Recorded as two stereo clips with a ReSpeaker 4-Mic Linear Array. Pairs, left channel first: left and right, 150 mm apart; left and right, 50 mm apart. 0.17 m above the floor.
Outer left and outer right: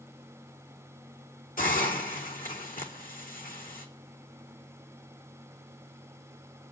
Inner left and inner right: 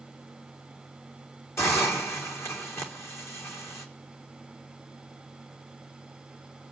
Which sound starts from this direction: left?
A hiss, at 1.6 s.